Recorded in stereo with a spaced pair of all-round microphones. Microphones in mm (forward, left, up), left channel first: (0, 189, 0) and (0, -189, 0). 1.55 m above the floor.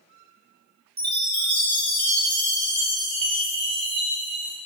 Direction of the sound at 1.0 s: 60° right (ahead or behind).